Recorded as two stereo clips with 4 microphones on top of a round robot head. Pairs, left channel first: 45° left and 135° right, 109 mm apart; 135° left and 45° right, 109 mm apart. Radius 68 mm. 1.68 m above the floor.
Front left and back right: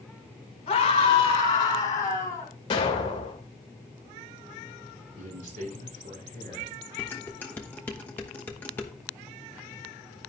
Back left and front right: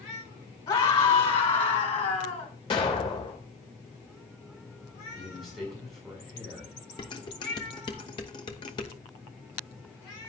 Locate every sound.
0.7 s a scream: 90° left, 4.5 m; by 2.5 s 115° left, 4 m
2.7 s an explosion: 90° left, 2.5 m
5.2 s a man speaking: 140° right, 6 m
7.0 s dishes clattering: 110° left, 0.8 m